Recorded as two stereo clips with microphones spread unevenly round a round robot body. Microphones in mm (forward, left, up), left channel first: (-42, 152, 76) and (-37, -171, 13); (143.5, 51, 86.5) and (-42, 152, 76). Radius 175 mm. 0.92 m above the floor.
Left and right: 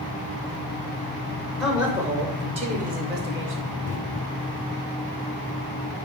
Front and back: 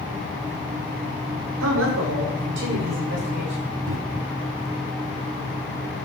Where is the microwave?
140° left, 1.3 m.